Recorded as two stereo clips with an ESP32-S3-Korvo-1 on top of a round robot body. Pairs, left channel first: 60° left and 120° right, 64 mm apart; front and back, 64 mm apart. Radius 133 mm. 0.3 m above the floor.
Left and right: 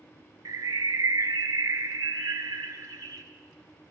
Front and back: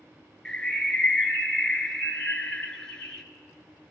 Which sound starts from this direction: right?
A bird, at 0.5 s.